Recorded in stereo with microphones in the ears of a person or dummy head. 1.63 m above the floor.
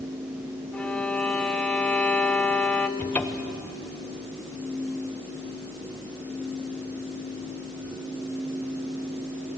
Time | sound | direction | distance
0.7 | a violin | 10° left (ahead or behind) | 0.8 m
3.0 | a cupboard door | 10° left (ahead or behind) | 1.1 m